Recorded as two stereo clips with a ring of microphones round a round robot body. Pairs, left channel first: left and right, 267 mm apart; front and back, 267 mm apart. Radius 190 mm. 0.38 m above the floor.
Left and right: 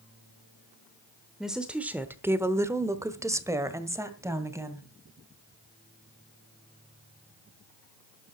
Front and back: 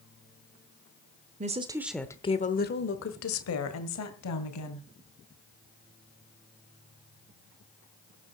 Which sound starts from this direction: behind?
A woman speaking, at 1.4 s.